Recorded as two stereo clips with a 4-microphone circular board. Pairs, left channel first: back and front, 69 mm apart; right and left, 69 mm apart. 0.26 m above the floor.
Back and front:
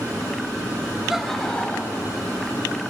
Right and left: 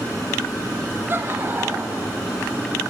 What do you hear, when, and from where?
1.1 s laughter: 80° left, 1.1 m; by 2.2 s 140° left, 1.4 m